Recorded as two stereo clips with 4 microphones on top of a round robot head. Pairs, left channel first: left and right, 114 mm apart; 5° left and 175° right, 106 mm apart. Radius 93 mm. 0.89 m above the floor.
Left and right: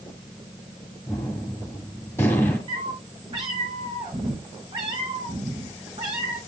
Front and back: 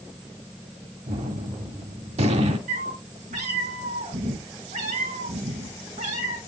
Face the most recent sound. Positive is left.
turn(degrees=-150)